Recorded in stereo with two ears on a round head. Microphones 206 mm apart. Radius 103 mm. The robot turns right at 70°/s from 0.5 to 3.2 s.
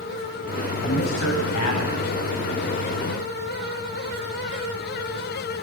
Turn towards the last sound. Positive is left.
turn(degrees=-165)